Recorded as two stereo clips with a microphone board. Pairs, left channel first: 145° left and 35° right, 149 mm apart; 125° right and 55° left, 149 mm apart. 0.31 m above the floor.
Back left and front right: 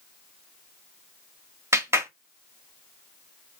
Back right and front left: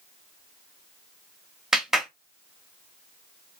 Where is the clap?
25° right, 0.7 m.